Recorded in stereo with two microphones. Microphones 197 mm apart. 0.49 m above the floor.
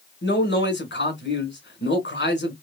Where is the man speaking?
65° left (ahead or behind), 2 m.